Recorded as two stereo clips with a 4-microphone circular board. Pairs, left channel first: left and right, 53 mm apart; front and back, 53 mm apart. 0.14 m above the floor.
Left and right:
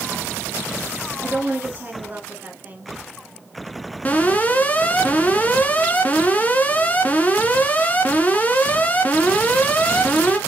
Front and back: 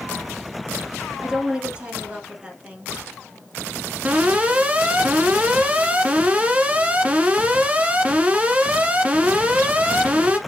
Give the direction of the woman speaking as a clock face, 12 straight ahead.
4 o'clock.